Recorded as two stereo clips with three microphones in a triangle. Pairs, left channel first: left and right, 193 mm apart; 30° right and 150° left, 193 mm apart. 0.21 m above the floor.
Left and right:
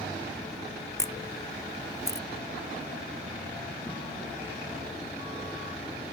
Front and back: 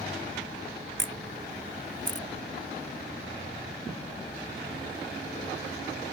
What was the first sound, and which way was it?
A camera shutter, 165° left.